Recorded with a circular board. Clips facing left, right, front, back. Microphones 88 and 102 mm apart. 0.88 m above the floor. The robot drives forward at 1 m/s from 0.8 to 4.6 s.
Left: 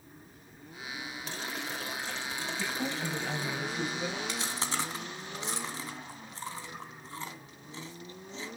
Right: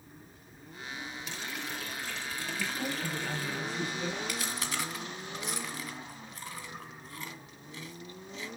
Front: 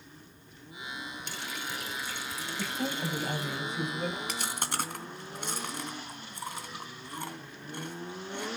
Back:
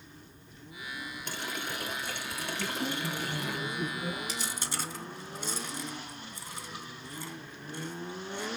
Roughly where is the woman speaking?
Ahead.